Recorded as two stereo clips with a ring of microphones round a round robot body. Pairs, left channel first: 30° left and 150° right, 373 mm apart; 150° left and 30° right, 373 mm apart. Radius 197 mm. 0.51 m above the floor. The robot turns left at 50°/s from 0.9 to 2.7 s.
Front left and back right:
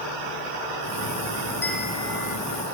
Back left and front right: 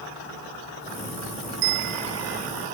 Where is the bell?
55° right, 1.0 m; by 2.4 s 95° right, 1.0 m.